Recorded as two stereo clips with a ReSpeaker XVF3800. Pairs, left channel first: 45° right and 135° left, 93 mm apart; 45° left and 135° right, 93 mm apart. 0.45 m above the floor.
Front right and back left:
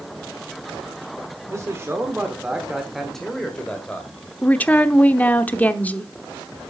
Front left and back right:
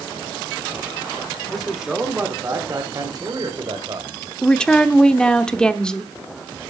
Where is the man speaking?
130° left, 1.3 m; by 4.2 s 115° right, 2 m.